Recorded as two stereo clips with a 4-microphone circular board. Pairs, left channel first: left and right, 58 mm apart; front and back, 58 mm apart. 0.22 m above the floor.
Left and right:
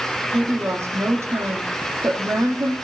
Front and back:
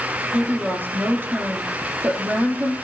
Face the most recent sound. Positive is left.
turn(degrees=-125)